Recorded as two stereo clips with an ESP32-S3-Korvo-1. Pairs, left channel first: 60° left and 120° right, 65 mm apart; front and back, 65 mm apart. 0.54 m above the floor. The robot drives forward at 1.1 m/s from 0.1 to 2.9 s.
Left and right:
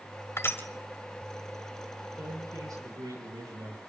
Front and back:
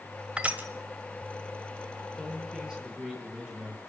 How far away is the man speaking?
About 9.5 m.